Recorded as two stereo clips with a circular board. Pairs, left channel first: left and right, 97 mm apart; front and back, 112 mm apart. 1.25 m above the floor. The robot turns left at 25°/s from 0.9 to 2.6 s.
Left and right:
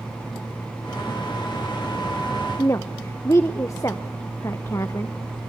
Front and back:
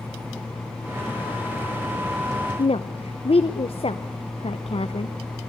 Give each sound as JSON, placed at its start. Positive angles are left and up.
{"t": 2.6, "sound": "a woman speaking", "azimuth_deg": 30, "distance_m": 0.8}